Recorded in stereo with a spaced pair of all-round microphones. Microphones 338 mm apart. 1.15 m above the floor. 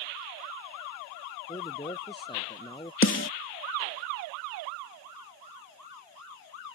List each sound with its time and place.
1.5 s a man speaking: 15° left (ahead or behind)
3.0 s a snare drum: 35° left (ahead or behind)